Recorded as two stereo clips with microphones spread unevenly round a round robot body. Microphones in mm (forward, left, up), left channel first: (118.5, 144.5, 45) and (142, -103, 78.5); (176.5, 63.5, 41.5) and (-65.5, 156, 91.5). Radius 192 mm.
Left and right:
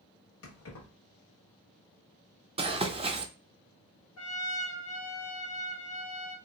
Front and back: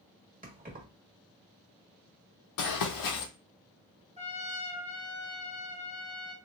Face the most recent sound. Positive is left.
turn(degrees=90)